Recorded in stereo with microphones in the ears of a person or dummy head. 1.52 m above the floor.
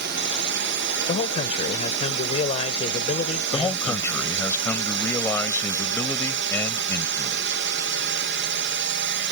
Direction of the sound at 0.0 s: 55° right (ahead or behind).